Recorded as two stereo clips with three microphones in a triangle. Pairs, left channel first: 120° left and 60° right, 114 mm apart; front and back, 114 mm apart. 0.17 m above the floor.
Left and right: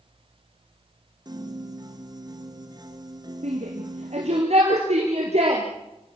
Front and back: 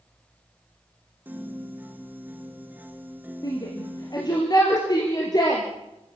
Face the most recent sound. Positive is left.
turn(degrees=-55)